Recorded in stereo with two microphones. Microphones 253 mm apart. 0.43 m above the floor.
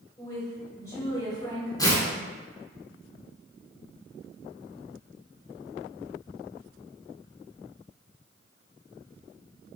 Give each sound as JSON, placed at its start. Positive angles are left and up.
{"t": 0.2, "sound": "a woman speaking", "side_deg": 15, "distance_m": 1.8}
{"t": 1.8, "sound": "tearing paper", "side_deg": 15, "distance_m": 0.9}